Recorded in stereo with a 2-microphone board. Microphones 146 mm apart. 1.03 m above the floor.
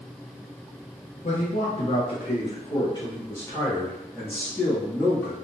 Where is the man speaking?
50° left (ahead or behind), 0.8 m; by 5.3 s 15° left (ahead or behind), 2 m.